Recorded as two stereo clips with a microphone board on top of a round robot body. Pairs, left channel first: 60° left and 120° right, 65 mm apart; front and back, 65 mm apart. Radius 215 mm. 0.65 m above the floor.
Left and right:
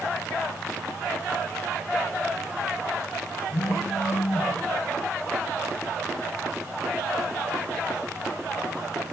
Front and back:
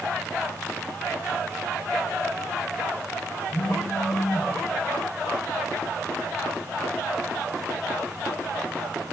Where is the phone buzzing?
80° left, 0.7 m.